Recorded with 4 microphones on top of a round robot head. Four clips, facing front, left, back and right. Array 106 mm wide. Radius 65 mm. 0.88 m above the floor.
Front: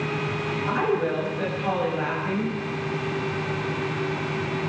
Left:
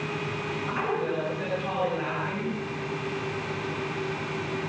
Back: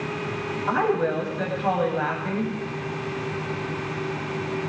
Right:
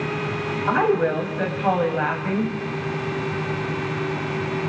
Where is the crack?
No crack in this recording.